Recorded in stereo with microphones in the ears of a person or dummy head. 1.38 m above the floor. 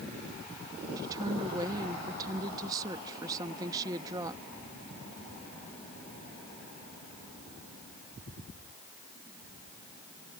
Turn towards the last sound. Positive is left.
turn(degrees=-25)  # may be behind; listen again after turning